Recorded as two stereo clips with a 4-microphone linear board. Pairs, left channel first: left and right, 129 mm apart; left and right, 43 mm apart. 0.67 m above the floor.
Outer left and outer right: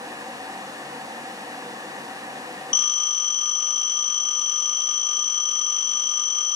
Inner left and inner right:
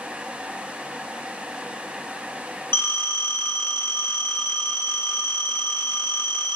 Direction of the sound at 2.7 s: 65° left (ahead or behind).